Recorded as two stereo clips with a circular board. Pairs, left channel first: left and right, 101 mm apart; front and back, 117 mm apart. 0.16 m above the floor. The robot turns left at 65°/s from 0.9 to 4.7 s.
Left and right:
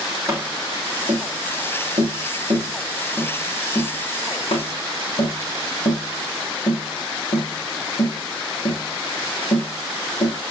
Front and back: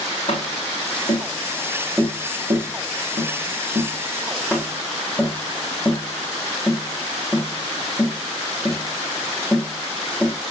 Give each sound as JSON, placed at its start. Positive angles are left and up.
{"t": 0.3, "sound": "tapping", "azimuth_deg": -30, "distance_m": 5.5}